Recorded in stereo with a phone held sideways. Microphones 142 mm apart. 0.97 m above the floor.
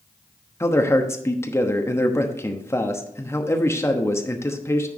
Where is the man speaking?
20° left (ahead or behind), 1.0 m.